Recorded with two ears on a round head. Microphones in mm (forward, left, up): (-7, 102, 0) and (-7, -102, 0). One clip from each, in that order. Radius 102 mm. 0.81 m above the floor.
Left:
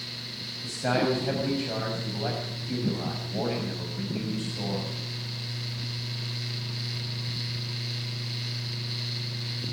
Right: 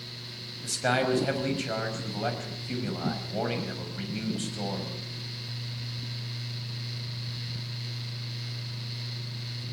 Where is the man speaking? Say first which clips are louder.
Even; 45° right (ahead or behind), 5.5 m.